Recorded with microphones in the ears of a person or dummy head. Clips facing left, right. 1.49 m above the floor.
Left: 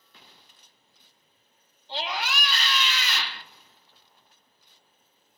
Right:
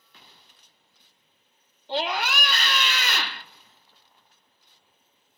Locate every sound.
1.9 s a scream: 45° right (ahead or behind), 0.7 m